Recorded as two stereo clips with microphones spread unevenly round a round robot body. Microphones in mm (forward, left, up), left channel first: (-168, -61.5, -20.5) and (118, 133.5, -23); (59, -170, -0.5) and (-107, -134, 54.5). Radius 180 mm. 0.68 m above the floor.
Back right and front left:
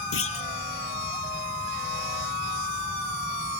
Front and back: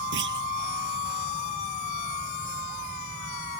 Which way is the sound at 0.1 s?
160° left.